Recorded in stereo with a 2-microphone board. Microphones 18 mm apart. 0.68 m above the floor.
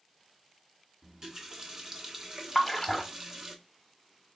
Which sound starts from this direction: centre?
A splash, at 2.5 s.